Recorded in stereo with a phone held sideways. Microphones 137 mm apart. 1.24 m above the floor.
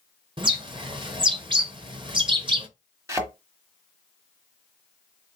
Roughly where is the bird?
Right.